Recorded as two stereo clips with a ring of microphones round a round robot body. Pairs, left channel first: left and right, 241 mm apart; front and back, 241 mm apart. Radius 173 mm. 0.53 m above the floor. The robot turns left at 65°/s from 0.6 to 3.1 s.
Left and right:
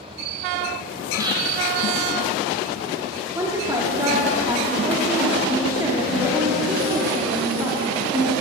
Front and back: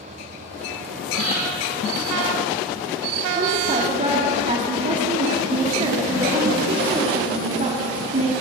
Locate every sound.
1.1 s breathing: 10° right, 2 m; by 1.4 s 30° right, 2 m
3.4 s a woman speaking: 155° right, 0.9 m